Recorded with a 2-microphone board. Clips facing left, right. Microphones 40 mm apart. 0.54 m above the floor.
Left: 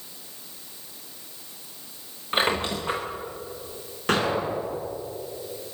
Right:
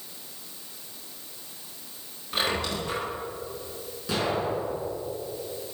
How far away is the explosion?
About 6 m.